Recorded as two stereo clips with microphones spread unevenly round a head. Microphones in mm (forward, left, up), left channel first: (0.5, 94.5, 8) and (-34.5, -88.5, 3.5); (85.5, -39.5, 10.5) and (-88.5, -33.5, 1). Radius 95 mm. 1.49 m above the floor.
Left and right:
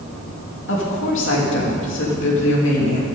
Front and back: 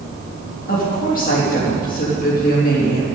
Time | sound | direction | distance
0.7 | a woman speaking | 50° left | 3 m